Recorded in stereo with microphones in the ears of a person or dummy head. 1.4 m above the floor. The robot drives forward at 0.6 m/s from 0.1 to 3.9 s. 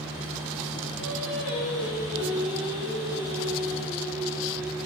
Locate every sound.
1.0 s singing: 80° left, 3.5 m; by 4.8 s 60° left (ahead or behind), 4 m